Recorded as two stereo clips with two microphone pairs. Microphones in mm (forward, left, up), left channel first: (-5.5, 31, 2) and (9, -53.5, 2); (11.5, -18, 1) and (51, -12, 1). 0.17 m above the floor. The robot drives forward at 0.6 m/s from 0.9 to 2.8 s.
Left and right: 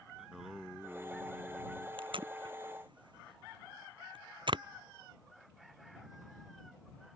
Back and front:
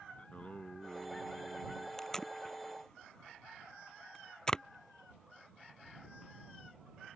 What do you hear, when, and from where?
0.2 s singing: 160° right; by 1.9 s 170° right
2.0 s tape being pulled: 90° right; by 4.6 s 100° right